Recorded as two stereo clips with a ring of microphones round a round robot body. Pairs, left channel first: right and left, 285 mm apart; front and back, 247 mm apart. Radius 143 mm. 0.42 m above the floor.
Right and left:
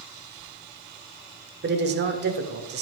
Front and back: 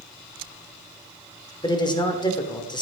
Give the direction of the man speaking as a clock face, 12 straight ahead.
10 o'clock.